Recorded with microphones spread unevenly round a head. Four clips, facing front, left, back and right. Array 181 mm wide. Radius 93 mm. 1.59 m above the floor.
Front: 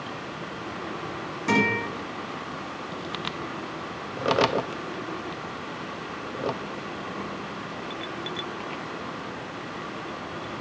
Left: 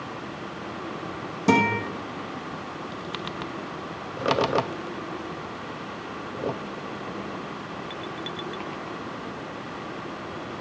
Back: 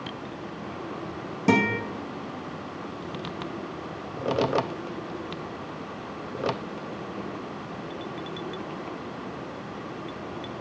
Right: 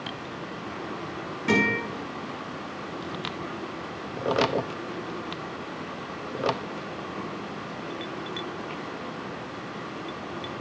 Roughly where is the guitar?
Behind left.